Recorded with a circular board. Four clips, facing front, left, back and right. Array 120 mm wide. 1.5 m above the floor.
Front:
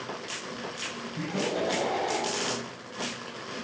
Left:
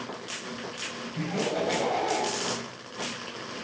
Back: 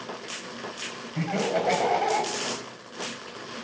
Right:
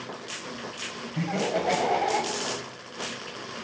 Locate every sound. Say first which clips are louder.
1.1 s laughter: right 2 dB, back 4 dB; 155° right, 7.5 m; by 2.3 s 150° right, 8 m